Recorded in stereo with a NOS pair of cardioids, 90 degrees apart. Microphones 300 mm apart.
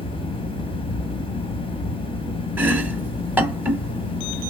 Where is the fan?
15° left, 0.9 m.